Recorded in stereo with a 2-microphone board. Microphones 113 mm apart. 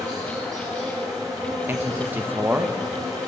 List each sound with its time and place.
0.0 s an insect: 30° right (ahead or behind), 3.5 m
1.7 s a man speaking: 20° right (ahead or behind), 0.6 m